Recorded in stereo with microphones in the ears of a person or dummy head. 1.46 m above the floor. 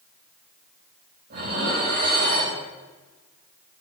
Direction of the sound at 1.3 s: 50° right (ahead or behind).